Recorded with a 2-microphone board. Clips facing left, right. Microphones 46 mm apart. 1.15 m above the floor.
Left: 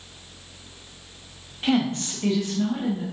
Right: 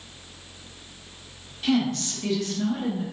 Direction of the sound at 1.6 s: 30° left (ahead or behind).